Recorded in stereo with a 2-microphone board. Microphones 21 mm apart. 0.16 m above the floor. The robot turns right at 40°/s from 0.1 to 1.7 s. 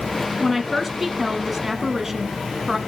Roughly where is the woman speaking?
Centre.